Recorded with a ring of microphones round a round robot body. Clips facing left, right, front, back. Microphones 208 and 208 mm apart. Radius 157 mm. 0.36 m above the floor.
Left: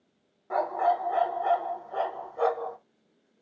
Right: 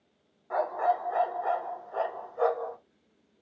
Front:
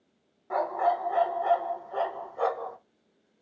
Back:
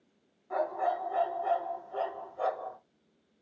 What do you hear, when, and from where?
0.5 s a dog barking: 35° left, 0.8 m